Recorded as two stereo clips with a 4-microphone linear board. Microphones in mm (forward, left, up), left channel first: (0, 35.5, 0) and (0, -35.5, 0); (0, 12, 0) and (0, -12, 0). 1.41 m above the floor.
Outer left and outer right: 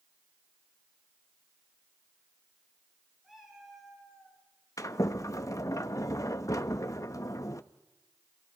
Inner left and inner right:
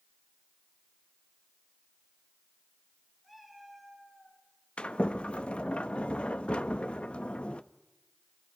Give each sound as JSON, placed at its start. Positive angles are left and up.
{"t": 3.2, "sound": "a cat meowing", "side_deg": -5, "distance_m": 6.5}
{"t": 4.8, "sound": "a sliding door", "side_deg": 55, "distance_m": 0.9}